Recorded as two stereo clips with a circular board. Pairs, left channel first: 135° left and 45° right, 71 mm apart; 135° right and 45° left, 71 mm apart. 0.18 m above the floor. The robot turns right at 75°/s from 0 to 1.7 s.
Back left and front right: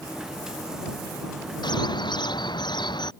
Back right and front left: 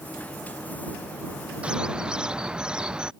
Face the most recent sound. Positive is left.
turn(degrees=125)